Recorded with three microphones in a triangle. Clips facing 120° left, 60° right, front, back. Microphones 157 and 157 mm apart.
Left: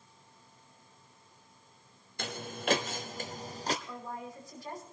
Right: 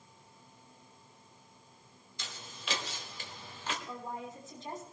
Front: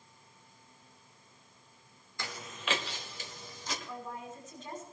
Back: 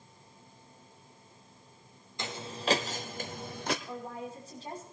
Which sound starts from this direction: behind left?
Footsteps, at 2.2 s.